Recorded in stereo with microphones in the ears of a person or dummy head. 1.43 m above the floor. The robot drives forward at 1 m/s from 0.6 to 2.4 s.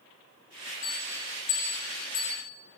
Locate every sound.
0.8 s a bell: 30° left (ahead or behind), 1.5 m; by 2.4 s 25° left (ahead or behind), 1.9 m